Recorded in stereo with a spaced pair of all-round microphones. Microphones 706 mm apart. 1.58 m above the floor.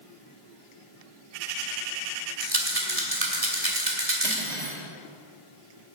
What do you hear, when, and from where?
2.4 s a rattle: 55° right (ahead or behind), 2 m
4.2 s cutlery clinking: 65° right (ahead or behind), 2 m